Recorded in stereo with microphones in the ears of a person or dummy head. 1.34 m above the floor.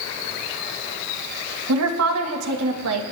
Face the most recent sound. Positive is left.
turn(degrees=-85)